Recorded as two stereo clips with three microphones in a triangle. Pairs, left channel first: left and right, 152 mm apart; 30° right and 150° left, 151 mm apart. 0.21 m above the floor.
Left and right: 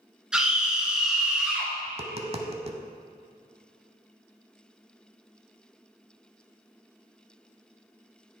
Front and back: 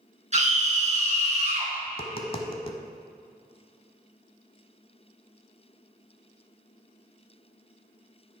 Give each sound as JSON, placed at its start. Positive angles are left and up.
{"t": 0.3, "sound": "a scream", "azimuth_deg": -175, "distance_m": 2.5}
{"t": 1.9, "sound": "tapping", "azimuth_deg": -65, "distance_m": 0.8}